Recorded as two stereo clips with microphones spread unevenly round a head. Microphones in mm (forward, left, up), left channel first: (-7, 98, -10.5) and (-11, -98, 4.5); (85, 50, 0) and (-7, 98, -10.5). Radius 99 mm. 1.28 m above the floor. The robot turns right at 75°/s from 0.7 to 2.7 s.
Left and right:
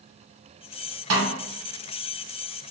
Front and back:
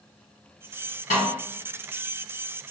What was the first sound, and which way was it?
A snare drum, 75° right.